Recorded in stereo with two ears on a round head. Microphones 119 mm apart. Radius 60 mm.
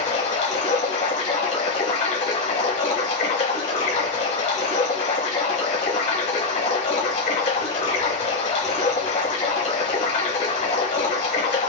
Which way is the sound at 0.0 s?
55° left (ahead or behind).